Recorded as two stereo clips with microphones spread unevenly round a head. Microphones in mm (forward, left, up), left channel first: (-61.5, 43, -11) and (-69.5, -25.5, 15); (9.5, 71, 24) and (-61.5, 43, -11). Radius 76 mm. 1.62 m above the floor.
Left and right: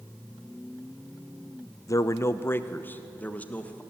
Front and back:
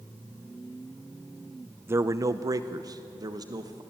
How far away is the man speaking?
About 0.6 m.